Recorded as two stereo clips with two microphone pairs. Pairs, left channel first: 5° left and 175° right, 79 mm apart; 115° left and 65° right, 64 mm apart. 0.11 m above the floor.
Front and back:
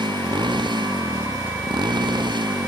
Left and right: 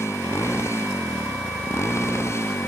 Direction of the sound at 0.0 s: 165° left.